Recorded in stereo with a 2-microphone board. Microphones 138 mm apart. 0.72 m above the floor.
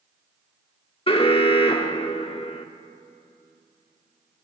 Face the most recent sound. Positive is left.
turn(degrees=45)  # may be behind; listen again after turning